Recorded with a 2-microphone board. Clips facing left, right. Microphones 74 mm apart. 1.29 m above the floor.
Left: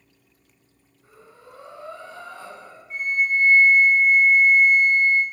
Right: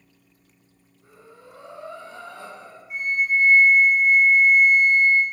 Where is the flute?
15° right (ahead or behind), 0.6 m.